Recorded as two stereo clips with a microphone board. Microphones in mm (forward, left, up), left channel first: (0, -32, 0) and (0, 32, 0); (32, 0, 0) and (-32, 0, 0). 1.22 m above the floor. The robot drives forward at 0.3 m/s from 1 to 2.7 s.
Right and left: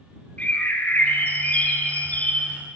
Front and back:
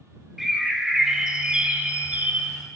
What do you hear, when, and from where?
0.4 s a bird: 100° right, 0.9 m; by 2.6 s 145° right, 1.0 m